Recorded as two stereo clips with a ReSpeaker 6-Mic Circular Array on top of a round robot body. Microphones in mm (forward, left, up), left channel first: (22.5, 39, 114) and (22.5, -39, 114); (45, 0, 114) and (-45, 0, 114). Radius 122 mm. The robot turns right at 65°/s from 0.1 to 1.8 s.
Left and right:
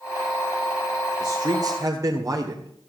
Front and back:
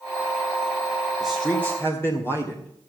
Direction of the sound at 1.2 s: 95° right.